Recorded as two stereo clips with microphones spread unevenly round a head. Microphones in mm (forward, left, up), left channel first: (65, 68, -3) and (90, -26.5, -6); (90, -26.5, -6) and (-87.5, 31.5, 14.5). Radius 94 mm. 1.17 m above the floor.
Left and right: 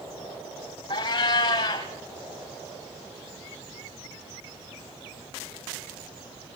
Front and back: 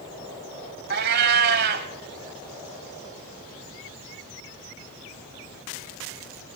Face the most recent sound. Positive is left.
turn(degrees=145)